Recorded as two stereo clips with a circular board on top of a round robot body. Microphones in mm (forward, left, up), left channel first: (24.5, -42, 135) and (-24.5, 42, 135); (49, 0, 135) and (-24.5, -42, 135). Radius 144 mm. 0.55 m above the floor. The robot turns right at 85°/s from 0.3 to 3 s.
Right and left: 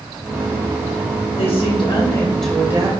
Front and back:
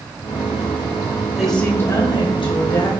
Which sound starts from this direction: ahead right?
A woman speaking, at 1.4 s.